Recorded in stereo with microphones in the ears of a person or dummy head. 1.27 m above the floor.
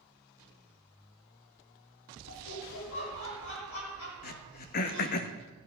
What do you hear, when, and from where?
2.3 s laughter: 80° left, 7 m
4.2 s throat clearing: 50° left (ahead or behind), 1.3 m